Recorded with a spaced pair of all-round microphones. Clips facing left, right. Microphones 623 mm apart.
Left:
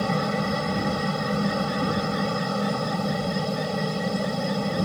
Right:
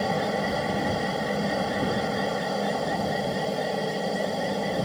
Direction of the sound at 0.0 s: 35° left (ahead or behind).